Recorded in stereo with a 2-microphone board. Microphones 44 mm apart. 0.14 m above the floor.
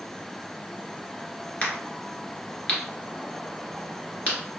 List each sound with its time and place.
1.6 s a crack: 35° left (ahead or behind), 1.3 m